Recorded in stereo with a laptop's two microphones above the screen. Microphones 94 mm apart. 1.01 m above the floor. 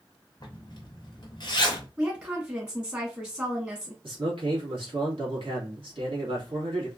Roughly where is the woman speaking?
Right.